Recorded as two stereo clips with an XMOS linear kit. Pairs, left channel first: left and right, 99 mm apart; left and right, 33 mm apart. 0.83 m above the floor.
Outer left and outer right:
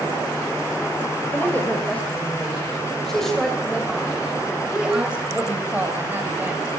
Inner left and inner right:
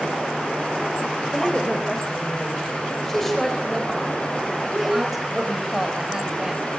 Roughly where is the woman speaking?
Centre.